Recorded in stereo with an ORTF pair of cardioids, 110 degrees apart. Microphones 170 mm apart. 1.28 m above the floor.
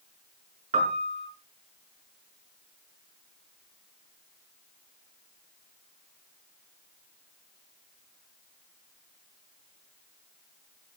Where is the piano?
45° right, 5.5 m.